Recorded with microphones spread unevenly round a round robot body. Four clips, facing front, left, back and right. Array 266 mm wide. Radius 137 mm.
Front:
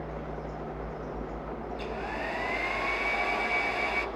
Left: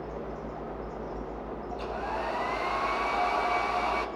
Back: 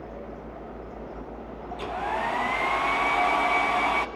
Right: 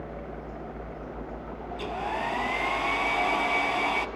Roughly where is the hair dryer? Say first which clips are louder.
Right 2 dB, back 8 dB; behind right.